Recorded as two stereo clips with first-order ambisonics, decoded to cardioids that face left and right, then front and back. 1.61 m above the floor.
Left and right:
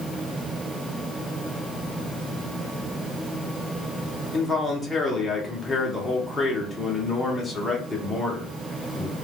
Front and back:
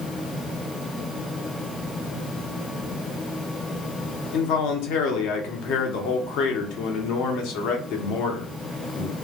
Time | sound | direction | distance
4.3 | a man speaking | 10° left | 0.7 m